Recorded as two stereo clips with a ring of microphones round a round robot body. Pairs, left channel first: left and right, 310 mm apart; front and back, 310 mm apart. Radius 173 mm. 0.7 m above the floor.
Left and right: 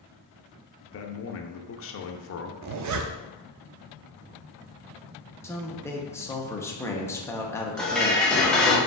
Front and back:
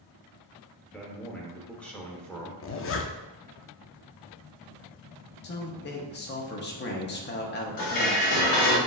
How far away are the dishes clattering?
About 1.1 m.